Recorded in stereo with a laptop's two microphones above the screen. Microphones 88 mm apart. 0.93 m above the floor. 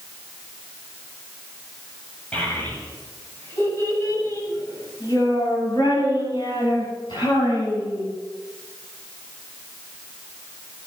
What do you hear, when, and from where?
2.3 s a child speaking: 15° left (ahead or behind), 4.5 m; by 8.1 s 70° left (ahead or behind), 6.5 m